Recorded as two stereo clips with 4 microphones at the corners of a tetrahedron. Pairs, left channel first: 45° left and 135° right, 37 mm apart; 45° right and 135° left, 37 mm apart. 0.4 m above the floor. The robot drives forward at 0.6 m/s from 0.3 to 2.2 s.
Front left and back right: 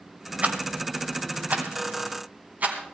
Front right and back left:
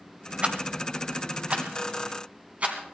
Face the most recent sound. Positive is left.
turn(degrees=180)